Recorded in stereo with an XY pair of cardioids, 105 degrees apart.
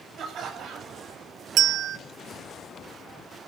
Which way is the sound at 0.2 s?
65° right.